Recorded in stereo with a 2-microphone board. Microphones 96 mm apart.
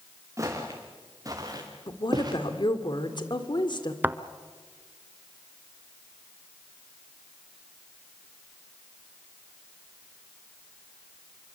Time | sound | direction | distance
0.4 | footsteps | 30° right (ahead or behind) | 5 m
1.9 | a woman speaking | 55° left (ahead or behind) | 2 m
4.0 | a thud | 20° right (ahead or behind) | 0.7 m